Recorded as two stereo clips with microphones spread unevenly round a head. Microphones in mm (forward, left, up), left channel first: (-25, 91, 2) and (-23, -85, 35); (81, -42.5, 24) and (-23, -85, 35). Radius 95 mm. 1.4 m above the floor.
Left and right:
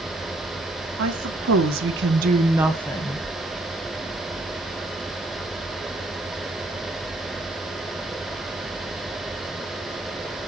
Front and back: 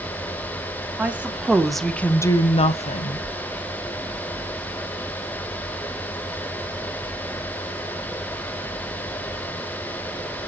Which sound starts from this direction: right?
A woman speaking, at 1.0 s.